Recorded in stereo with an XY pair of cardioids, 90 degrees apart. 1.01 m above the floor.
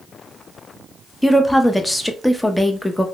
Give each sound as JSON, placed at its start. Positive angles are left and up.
{"t": 1.2, "sound": "a woman speaking", "azimuth_deg": 10, "distance_m": 0.6}